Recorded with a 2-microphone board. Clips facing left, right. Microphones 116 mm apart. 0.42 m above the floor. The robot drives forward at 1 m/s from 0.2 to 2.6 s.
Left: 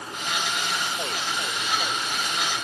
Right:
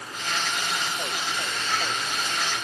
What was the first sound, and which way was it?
Only background noise.